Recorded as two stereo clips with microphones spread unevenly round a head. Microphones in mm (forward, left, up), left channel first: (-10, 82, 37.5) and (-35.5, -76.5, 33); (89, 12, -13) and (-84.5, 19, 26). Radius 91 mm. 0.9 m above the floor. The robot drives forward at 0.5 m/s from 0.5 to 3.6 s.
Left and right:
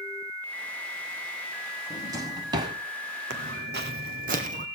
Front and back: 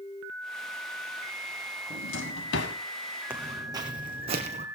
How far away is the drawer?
About 1.8 m.